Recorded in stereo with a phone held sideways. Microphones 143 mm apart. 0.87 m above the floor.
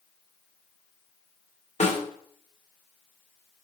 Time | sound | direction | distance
1.8 | a snare drum | 55° left (ahead or behind) | 2 m